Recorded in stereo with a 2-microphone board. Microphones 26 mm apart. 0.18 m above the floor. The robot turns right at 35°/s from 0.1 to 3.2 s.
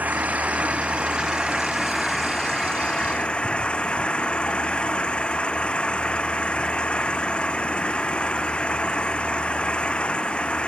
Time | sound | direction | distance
0.0 | an engine running | 70° right | ?